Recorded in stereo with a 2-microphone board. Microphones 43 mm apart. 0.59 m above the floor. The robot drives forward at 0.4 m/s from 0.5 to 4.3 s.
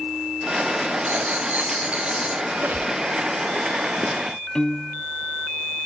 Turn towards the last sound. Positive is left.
turn(degrees=20)  # may be behind; listen again after turning